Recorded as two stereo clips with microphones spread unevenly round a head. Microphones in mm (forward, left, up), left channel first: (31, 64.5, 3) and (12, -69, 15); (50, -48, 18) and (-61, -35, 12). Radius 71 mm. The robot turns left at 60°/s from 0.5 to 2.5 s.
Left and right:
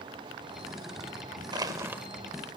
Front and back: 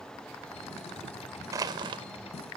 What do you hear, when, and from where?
1.5 s crushing: 135° right, 0.9 m; by 2.0 s 170° right, 0.9 m